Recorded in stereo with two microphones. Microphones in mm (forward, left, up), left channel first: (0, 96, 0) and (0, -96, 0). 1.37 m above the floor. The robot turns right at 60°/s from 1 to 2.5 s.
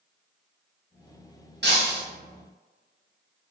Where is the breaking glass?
65° right (ahead or behind), 2.0 m; by 2.0 s 45° right (ahead or behind), 2.0 m.